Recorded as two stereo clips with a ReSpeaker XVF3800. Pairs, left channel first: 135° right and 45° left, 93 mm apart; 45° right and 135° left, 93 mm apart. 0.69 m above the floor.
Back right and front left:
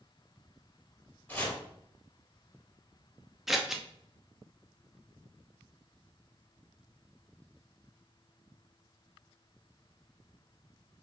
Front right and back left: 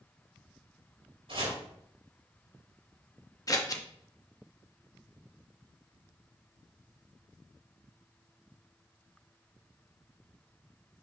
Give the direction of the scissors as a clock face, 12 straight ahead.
1 o'clock.